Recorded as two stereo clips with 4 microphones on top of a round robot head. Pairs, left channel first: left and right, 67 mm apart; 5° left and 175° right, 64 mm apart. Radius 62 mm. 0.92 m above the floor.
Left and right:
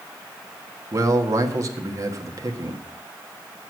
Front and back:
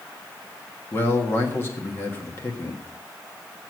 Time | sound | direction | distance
0.9 | a man speaking | 55° right | 1.6 m